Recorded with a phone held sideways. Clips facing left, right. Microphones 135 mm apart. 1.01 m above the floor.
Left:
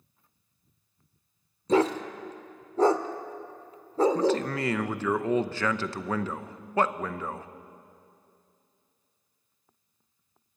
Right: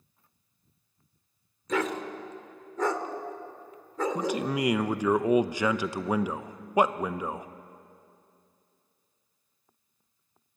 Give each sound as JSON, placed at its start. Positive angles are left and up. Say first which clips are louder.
{"t": 1.7, "sound": "a dog barking", "louder": "left 6 dB", "side_deg": 30, "distance_m": 1.1}
{"t": 4.2, "sound": "a man speaking", "louder": "left 3 dB", "side_deg": -15, "distance_m": 0.7}